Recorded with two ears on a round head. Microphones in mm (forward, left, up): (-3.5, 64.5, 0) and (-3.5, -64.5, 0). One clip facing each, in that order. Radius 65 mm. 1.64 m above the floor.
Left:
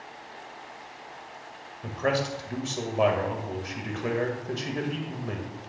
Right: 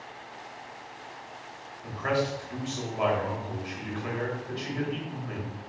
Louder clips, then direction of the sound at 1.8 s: Left 1 dB; 55° left (ahead or behind).